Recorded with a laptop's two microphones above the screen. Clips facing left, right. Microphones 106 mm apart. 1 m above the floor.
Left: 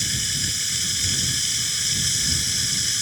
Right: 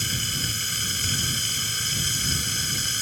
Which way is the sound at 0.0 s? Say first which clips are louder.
Right 1 dB; 50° right (ahead or behind).